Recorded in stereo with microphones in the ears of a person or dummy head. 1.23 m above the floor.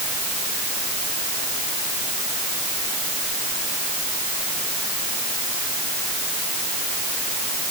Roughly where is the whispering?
I don't hear whispering.